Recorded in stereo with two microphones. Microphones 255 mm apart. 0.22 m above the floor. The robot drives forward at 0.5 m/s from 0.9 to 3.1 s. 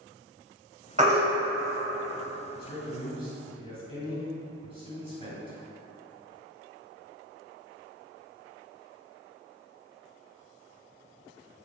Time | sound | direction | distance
1.0 | a baby crying | 25° right (ahead or behind) | 0.7 m
2.5 | a man speaking | 20° left (ahead or behind) | 1.6 m